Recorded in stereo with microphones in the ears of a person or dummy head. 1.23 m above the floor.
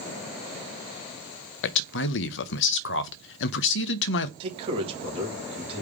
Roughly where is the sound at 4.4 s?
Right.